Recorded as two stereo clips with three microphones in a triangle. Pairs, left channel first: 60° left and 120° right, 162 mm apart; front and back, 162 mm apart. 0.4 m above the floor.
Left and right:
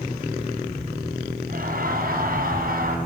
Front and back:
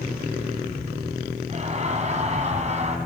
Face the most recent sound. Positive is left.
turn(degrees=-140)